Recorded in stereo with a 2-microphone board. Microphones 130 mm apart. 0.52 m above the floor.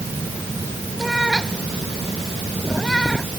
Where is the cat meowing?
Centre (ahead or behind).